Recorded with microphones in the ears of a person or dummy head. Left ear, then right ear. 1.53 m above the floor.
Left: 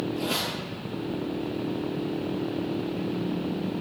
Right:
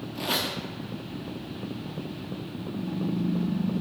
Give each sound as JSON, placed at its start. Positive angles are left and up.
{"t": 0.1, "sound": "a squeak", "side_deg": -15, "distance_m": 0.7}